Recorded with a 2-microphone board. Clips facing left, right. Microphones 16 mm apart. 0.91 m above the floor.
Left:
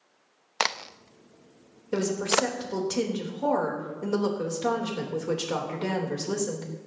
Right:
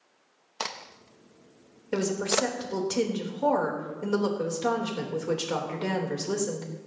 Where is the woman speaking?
30° right (ahead or behind), 3 m.